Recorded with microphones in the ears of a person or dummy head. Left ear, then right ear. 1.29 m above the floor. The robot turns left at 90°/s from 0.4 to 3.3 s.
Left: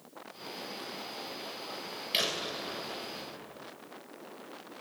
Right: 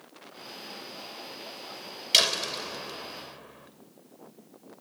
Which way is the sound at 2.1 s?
40° right.